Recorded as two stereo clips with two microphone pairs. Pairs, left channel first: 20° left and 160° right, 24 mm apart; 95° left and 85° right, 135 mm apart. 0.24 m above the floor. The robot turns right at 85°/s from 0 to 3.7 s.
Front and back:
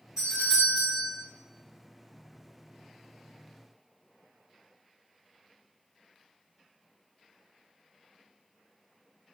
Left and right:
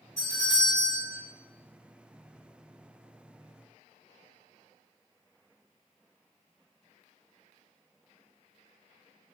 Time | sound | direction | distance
0.2 | a doorbell | 130° right | 1.6 m